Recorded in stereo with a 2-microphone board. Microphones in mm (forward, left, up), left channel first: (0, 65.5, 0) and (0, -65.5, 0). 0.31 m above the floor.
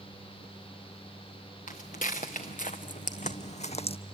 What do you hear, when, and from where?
1.7 s footsteps: 80° left, 1.8 m; by 4.0 s 50° left (ahead or behind), 0.6 m